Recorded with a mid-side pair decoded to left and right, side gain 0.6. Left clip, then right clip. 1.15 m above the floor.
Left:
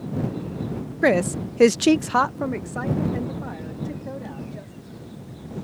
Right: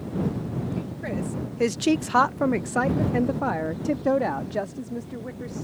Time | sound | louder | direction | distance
1.0 | a woman speaking | left 15 dB | 65° left | ?